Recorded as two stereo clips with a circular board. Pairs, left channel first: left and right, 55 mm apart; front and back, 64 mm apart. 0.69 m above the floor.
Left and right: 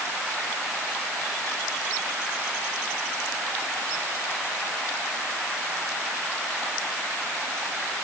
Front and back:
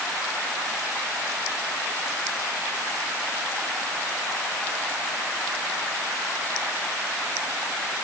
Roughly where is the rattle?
No rattle in this recording.